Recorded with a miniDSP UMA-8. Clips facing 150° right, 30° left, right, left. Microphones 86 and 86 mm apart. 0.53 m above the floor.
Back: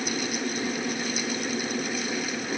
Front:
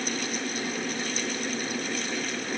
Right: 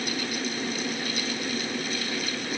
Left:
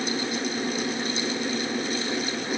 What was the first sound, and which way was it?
Only background noise.